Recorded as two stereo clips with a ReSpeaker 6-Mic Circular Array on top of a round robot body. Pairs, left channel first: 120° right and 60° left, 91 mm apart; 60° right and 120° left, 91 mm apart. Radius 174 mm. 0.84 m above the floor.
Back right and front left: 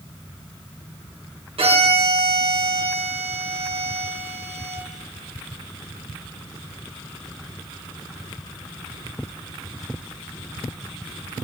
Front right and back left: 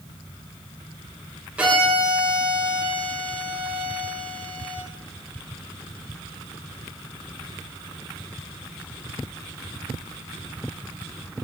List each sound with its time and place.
1.6 s a violin: 40° left, 3 m